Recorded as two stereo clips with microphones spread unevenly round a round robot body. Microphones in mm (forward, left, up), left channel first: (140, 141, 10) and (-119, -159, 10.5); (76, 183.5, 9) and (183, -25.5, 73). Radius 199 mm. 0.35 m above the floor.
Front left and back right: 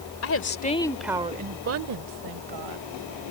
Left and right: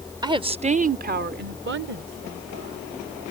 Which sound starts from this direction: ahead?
A woman speaking, at 0.2 s.